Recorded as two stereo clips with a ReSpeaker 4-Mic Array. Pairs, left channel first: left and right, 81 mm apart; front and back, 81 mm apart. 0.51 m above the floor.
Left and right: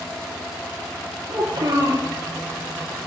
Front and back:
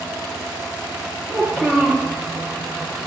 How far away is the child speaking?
About 5 m.